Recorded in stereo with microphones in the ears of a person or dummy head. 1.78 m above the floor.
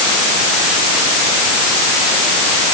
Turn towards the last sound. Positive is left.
No sound to turn to.